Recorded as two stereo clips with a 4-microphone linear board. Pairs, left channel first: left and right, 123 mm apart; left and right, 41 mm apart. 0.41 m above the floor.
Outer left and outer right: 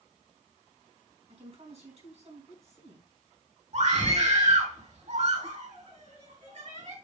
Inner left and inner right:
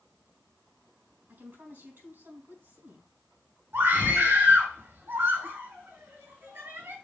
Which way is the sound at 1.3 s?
60° right (ahead or behind).